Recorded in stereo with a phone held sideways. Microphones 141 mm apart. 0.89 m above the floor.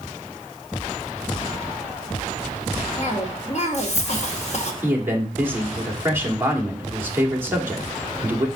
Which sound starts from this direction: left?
A cough, at 3.0 s.